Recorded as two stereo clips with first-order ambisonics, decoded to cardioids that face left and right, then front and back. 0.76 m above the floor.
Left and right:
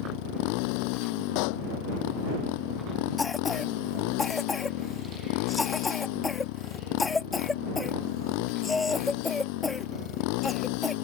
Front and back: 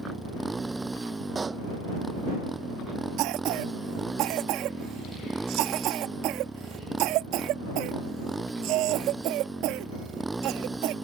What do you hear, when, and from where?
0.0 s a motorcycle: 100° left
1.4 s a pop: 105° left
3.2 s a cough: 165° left